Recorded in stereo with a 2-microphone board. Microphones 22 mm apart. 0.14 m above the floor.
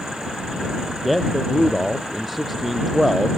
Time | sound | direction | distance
1.0 | a man speaking | 10° right (ahead or behind) | ?